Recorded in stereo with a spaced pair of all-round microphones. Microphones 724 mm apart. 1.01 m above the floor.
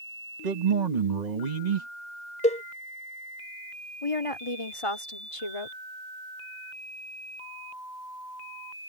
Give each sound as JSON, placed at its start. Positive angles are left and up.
{"t": 0.4, "sound": "a man speaking", "side_deg": -75}
{"t": 2.4, "sound": "a cowbell", "side_deg": 10}
{"t": 4.0, "sound": "a woman speaking", "side_deg": 45}